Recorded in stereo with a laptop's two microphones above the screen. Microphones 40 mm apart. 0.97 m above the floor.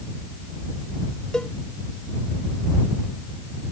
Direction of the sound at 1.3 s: 20° left (ahead or behind).